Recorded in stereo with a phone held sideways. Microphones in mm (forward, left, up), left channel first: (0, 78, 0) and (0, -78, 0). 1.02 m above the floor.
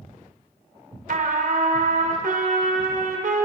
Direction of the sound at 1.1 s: 55° right (ahead or behind).